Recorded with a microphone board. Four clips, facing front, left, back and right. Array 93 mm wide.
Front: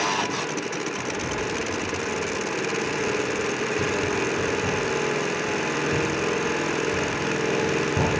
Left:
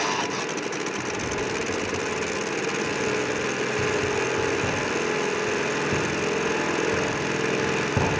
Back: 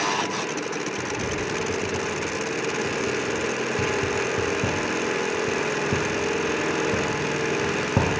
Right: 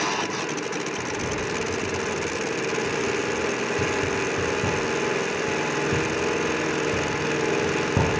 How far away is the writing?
About 3.5 m.